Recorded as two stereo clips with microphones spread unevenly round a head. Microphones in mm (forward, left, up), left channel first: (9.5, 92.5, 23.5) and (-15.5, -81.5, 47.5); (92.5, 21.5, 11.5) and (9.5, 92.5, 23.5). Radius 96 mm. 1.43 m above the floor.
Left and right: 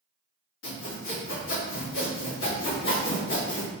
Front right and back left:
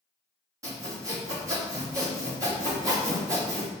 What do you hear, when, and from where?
0.6 s sawing: 80° left, 3 m